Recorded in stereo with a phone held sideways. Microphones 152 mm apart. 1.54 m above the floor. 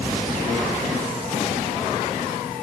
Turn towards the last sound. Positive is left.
No sound to turn to.